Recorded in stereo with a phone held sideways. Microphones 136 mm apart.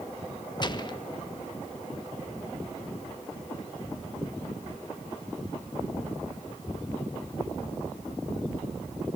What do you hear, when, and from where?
0.6 s a gunshot: 30° left (ahead or behind), 1.3 m